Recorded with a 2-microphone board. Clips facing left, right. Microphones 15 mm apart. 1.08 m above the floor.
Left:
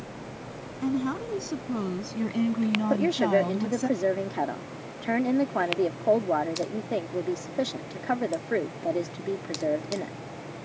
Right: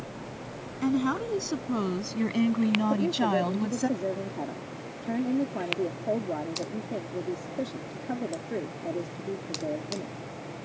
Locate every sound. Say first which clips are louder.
0.8 s a woman speaking: right 2 dB; 25° right (ahead or behind); by 3.9 s 15° right (ahead or behind)
2.9 s a woman speaking: left 3 dB; 65° left (ahead or behind)